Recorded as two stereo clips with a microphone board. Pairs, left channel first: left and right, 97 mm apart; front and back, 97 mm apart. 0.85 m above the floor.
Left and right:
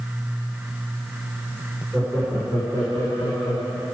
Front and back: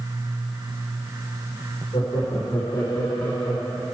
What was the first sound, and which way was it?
Laughter, 15° left.